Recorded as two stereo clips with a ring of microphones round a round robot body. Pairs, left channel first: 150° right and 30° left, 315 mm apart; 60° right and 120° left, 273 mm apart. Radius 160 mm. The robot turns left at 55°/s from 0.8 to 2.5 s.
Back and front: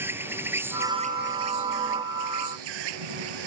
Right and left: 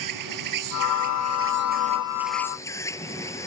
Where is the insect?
115° left; by 3.5 s 20° left.